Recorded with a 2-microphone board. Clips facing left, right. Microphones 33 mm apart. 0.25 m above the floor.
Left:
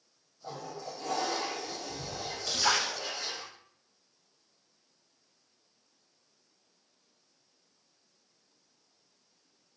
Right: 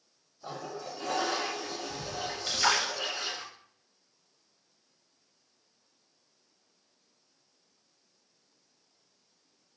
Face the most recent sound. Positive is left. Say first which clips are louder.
# right 1 dB
turn(degrees=-50)  # may be behind; listen again after turning